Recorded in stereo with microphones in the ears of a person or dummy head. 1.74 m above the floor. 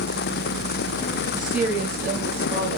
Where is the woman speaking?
Centre (ahead or behind), 3 m; by 2.8 s 20° right (ahead or behind), 3 m.